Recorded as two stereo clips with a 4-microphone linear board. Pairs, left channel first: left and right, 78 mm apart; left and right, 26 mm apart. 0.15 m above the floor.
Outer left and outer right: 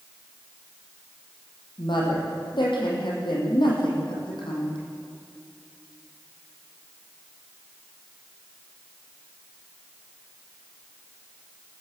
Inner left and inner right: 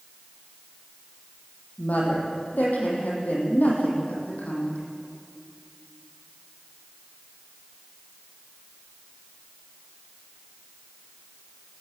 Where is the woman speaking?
75° left (ahead or behind), 7 m.